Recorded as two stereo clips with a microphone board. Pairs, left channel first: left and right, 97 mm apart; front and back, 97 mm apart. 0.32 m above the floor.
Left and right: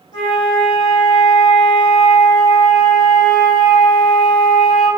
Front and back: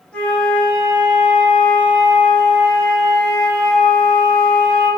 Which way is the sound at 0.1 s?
80° left.